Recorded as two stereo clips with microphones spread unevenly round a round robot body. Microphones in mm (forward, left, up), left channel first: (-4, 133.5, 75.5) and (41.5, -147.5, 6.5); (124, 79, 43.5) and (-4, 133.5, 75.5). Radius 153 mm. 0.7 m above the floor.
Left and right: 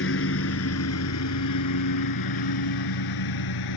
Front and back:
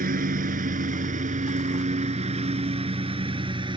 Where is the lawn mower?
150° left; by 3.8 s 105° left.